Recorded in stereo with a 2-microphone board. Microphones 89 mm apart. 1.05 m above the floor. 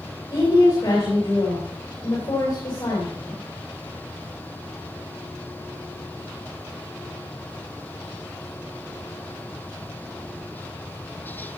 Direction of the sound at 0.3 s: 55° left (ahead or behind).